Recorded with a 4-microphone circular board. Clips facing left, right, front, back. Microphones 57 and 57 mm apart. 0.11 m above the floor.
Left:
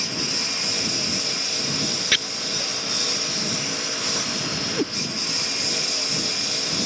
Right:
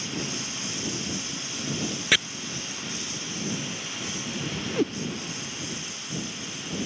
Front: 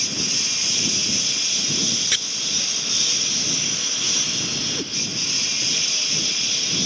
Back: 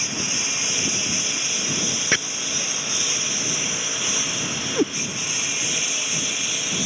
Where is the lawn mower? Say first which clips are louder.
Left 3 dB, back 1 dB; 110° left; by 6.9 s 105° left.